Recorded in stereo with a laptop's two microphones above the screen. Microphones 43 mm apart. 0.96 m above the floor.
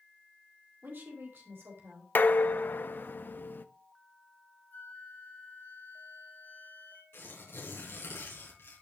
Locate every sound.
0.8 s a woman speaking: 50° right (ahead or behind), 2.5 m; by 2.0 s 70° right (ahead or behind), 3.5 m
2.1 s dishes clattering: 50° left (ahead or behind), 0.7 m
4.7 s a flute: 45° left (ahead or behind), 1.7 m
7.1 s tearing paper: 75° left (ahead or behind), 4 m